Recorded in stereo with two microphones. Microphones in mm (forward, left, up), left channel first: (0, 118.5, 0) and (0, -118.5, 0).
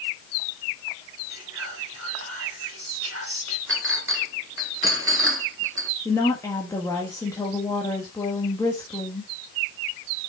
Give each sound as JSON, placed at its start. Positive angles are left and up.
{"t": 1.3, "sound": "whispering", "side_deg": -85, "distance_m": 2.0}
{"t": 3.7, "sound": "a clink", "side_deg": -60, "distance_m": 0.9}
{"t": 6.0, "sound": "a woman speaking", "side_deg": 15, "distance_m": 1.4}